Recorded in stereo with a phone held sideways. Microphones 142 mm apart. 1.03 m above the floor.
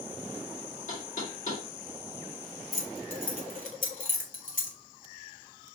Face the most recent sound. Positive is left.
turn(degrees=60)  # may be behind; listen again after turning